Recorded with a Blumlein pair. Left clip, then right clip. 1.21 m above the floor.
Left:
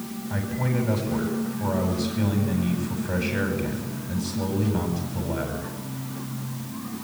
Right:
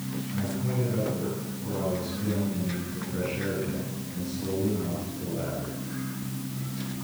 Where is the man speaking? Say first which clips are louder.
Left 5 dB; 55° left, 9.5 m.